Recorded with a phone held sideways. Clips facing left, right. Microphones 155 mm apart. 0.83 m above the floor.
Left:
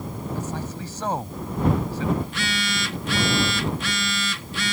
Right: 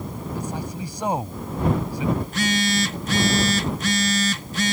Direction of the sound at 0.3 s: 15° right (ahead or behind).